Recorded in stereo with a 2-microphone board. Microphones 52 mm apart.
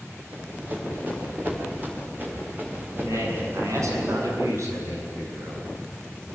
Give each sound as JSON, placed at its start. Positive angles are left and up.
{"t": 0.3, "sound": "running footsteps", "side_deg": -30, "distance_m": 6.5}
{"t": 3.0, "sound": "a man speaking", "side_deg": -75, "distance_m": 7.0}